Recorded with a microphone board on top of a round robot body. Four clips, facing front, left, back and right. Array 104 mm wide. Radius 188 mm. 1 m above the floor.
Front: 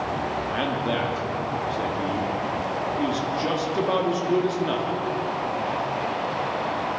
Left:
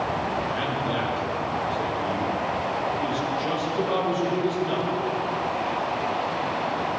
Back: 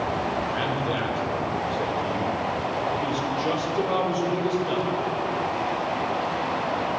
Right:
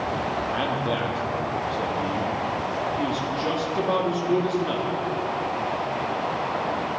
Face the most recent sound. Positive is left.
turn(degrees=-25)